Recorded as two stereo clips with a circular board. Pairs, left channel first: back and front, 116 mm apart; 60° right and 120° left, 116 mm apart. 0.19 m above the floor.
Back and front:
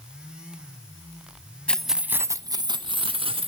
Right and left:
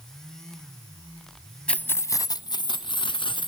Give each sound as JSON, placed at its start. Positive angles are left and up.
{"t": 1.7, "sound": "keys jangling", "azimuth_deg": -120, "distance_m": 0.6}